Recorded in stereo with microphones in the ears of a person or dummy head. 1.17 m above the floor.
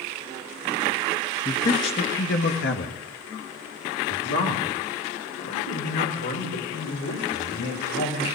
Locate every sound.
1.4 s a man speaking: 30° left (ahead or behind), 2 m; by 8.2 s 65° left (ahead or behind), 6 m